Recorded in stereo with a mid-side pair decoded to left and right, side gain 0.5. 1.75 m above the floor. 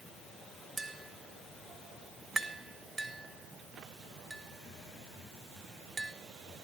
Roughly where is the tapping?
Ahead right.